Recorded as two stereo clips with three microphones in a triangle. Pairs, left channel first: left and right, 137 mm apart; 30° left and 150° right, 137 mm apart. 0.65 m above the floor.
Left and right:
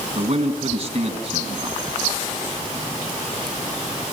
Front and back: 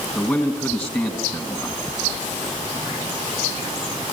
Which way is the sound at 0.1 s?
45° right.